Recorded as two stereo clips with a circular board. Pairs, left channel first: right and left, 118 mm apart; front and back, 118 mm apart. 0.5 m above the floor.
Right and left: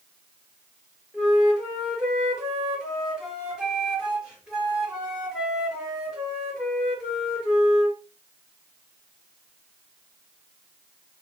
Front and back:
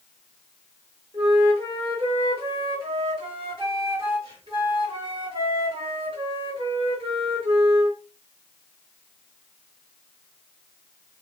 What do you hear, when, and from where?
1.1 s a flute: 175° left, 1.2 m